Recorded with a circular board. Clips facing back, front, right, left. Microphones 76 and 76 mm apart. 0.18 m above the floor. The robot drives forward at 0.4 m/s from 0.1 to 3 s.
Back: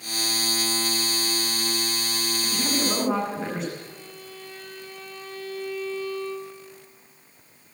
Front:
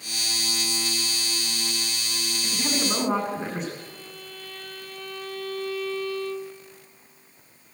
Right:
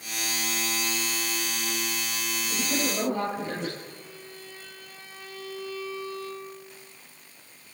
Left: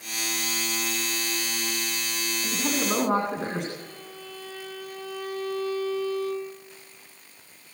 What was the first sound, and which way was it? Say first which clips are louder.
A woman speaking: back 1 dB, left 2 dB; 90° left.